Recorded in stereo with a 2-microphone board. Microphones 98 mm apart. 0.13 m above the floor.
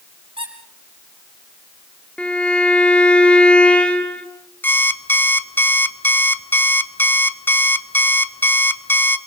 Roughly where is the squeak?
Right.